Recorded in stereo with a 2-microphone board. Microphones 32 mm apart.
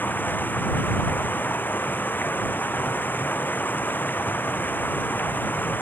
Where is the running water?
85° left.